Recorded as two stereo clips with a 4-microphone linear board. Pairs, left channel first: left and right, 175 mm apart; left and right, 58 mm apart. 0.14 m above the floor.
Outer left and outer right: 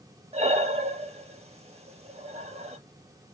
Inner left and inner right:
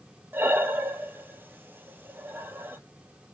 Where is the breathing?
40° right (ahead or behind), 0.7 m.